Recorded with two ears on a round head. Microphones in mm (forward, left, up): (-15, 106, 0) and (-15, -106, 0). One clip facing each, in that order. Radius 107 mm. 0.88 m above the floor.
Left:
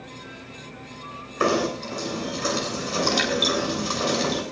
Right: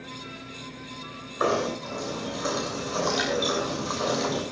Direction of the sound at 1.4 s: 40° left (ahead or behind).